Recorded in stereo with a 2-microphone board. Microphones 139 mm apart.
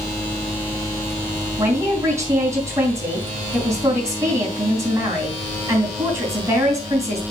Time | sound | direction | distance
1.6 | a man speaking | 20° right (ahead or behind) | 3 m